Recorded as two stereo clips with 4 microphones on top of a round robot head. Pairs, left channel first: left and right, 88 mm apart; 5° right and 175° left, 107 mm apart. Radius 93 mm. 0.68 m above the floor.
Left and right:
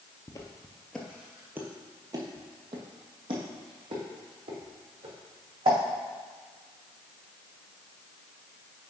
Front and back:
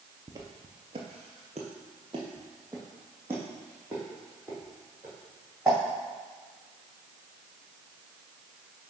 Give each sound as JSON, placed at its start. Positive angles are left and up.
{"t": 0.3, "sound": "footsteps", "azimuth_deg": 125, "distance_m": 0.9}